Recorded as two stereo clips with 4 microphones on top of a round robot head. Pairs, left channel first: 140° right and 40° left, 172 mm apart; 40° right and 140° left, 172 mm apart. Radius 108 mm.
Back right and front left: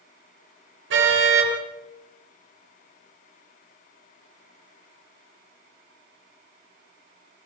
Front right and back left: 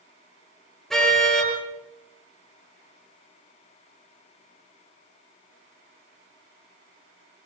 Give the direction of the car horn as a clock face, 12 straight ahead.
10 o'clock.